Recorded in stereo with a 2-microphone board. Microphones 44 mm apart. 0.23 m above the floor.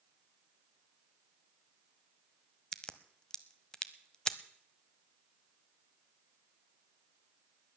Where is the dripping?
I don't hear dripping.